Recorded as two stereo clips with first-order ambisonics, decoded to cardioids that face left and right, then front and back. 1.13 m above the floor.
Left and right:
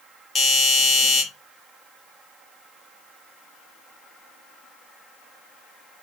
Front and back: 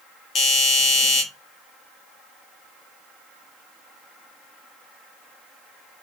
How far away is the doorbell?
About 0.8 m.